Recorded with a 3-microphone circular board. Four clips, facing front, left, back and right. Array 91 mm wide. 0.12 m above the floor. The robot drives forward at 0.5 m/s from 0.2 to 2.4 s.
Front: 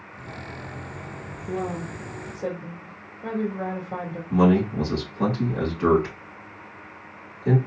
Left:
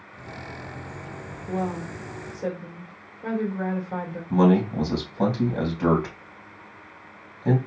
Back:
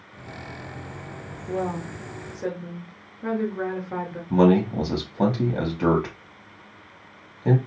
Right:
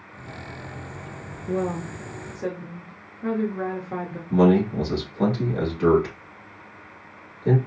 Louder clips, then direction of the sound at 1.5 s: Right 2 dB, back 1 dB; 115° right.